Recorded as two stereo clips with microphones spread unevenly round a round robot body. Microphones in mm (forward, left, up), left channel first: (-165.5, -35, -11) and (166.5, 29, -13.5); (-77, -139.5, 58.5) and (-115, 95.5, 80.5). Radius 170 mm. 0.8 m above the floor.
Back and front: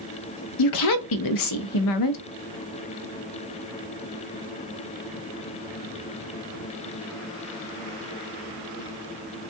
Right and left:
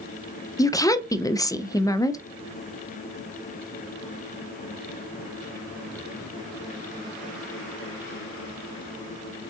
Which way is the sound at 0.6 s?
155° right.